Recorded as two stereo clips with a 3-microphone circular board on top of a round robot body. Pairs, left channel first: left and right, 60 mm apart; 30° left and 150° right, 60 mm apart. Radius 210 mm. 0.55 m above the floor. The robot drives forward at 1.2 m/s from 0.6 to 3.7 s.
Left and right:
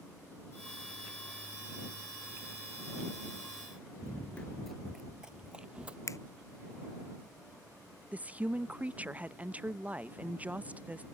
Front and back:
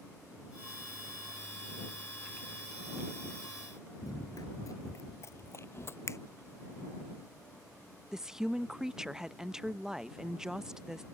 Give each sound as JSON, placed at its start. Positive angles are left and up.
{"t": 4.0, "sound": "running footsteps", "azimuth_deg": 50}
{"t": 6.1, "sound": "a finger snap", "azimuth_deg": 65}
{"t": 8.1, "sound": "a woman speaking", "azimuth_deg": -80}